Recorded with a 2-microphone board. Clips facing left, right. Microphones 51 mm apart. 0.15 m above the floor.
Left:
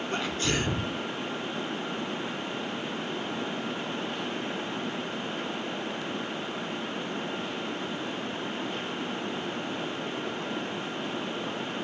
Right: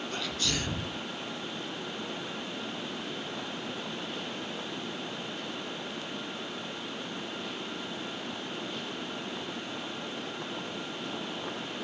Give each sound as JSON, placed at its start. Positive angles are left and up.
{"t": 0.1, "sound": "a sneeze", "side_deg": 35, "distance_m": 1.3}